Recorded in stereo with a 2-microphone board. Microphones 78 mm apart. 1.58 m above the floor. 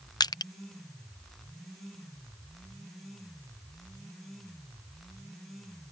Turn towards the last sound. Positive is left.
turn(degrees=55)  # may be behind; listen again after turning